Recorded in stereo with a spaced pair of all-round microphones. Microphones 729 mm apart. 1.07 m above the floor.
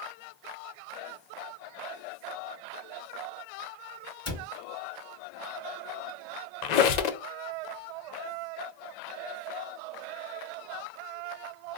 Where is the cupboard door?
30° left (ahead or behind), 2.5 m.